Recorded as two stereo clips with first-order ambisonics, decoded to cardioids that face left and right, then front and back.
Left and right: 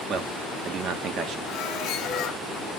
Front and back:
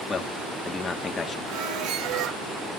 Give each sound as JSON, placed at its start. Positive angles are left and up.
{"t": 0.1, "sound": "a man speaking", "azimuth_deg": -60, "distance_m": 1.1}
{"t": 1.5, "sound": "a squeak", "azimuth_deg": 145, "distance_m": 0.9}